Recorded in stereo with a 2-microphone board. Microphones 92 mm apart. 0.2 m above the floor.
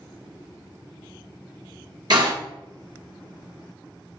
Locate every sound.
2.1 s a door slam: 55° right (ahead or behind), 2.5 m